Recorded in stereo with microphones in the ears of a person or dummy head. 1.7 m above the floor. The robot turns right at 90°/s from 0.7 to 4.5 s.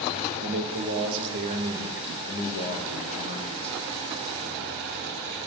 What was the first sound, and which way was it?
A man speaking, 105° right.